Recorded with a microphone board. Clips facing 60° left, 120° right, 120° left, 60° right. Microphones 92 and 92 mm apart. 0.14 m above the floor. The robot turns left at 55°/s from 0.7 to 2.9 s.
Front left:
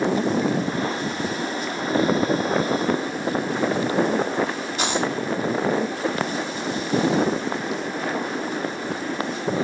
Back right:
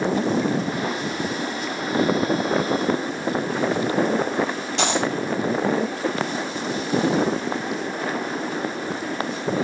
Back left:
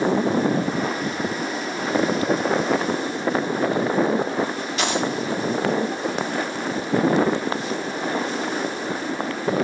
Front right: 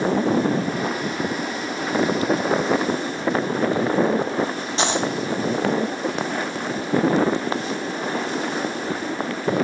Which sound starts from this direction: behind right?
A dropped coin, at 4.8 s.